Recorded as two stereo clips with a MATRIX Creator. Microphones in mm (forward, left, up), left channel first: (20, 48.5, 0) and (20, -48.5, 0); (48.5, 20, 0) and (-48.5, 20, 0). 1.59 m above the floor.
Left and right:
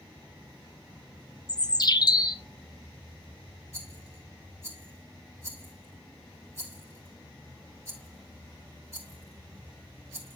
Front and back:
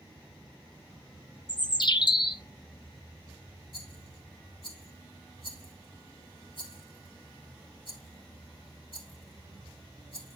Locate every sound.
1.5 s a bird: 40° left, 0.6 m
3.7 s a rattle: 30° right, 2.5 m